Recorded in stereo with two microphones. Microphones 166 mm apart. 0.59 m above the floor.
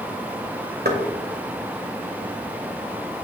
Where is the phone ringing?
I don't hear a phone ringing.